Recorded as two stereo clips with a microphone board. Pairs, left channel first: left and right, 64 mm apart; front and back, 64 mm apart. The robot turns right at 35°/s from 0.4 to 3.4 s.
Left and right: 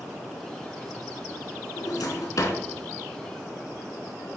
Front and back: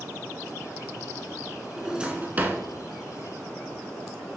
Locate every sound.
1.8 s a drawer: 100° left, 0.7 m; by 2.6 s 125° left, 0.7 m